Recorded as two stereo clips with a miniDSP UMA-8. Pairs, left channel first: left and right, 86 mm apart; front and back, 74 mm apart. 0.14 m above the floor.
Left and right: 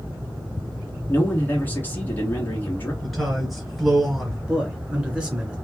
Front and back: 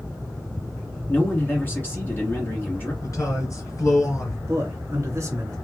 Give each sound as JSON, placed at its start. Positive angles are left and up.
{"t": 1.1, "sound": "a man speaking", "azimuth_deg": 40, "distance_m": 1.5}
{"t": 3.0, "sound": "a man speaking", "azimuth_deg": 0, "distance_m": 2.5}
{"t": 4.5, "sound": "a man speaking", "azimuth_deg": -165, "distance_m": 1.9}